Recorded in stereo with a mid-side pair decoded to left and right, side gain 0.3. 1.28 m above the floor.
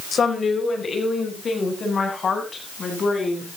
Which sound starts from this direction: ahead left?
A woman speaking, at 0.1 s.